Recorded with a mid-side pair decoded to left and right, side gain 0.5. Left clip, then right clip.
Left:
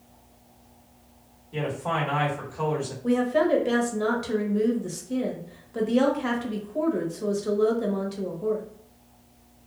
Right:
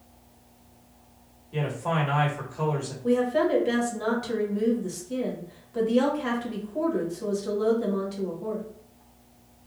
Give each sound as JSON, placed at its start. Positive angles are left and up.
{"t": 1.5, "sound": "a man speaking", "azimuth_deg": -10, "distance_m": 1.6}
{"t": 3.0, "sound": "a woman speaking", "azimuth_deg": 15, "distance_m": 1.3}